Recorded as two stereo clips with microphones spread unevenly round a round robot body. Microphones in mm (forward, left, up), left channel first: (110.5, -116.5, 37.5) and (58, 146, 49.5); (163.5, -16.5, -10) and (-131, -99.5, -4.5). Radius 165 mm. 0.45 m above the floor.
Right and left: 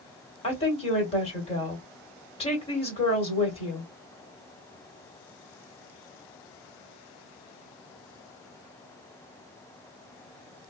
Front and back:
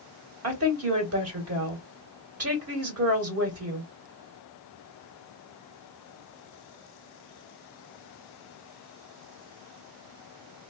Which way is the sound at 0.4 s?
140° right.